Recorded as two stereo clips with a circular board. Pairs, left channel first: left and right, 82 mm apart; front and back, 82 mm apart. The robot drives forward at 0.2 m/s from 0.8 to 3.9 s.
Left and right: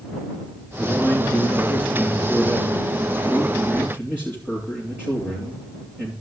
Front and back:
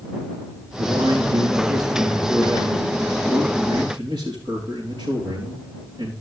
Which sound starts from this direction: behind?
A man speaking, at 0.8 s.